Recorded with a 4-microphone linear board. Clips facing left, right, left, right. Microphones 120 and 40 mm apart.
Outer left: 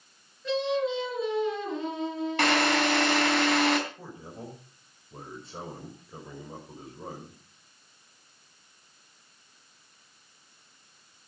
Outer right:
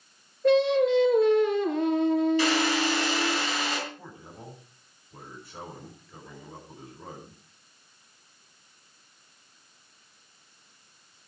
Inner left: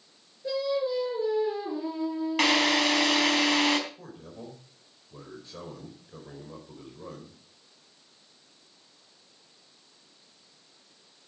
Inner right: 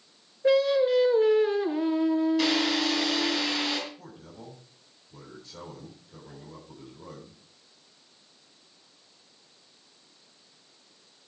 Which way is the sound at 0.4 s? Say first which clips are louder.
Outer right 7 dB, inner right 7 dB; 55° right (ahead or behind).